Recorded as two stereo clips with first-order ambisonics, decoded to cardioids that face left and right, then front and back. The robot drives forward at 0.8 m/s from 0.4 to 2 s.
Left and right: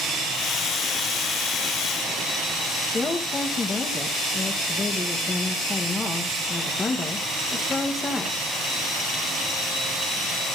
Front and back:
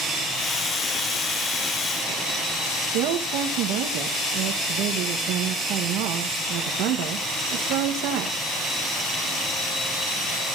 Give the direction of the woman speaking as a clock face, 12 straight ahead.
7 o'clock.